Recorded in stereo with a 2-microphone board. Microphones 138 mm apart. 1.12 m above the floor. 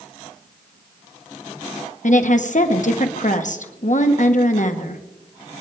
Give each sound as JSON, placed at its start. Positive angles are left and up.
{"t": 2.0, "sound": "a woman speaking", "side_deg": 65, "distance_m": 1.4}